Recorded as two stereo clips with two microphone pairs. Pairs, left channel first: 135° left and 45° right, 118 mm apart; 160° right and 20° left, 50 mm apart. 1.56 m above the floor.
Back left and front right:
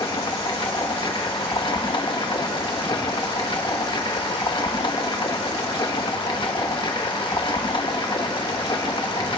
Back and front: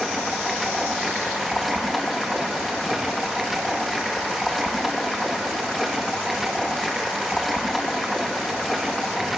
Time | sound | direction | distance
0.0 | running water | 110° left | 1.1 m